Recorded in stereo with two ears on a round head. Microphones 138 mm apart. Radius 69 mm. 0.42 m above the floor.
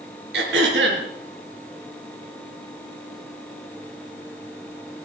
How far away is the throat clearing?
About 4 m.